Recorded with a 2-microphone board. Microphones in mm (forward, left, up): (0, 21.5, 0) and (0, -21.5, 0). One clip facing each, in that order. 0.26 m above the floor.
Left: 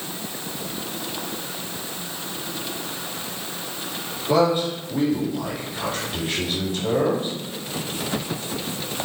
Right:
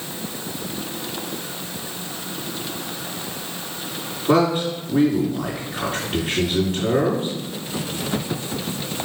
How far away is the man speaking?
About 3.5 m.